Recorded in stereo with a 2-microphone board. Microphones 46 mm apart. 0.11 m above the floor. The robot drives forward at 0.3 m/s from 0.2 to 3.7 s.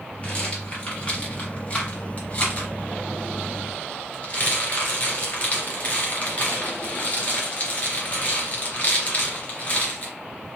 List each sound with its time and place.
0.2 s a rattle: 30° left (ahead or behind), 3 m; by 10.1 s 35° left (ahead or behind), 2.5 m